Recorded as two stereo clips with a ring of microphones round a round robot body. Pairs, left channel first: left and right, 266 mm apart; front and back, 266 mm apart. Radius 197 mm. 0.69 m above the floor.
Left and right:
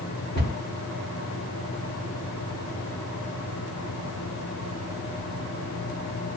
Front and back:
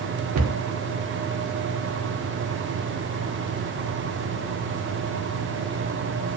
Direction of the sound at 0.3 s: 150° left.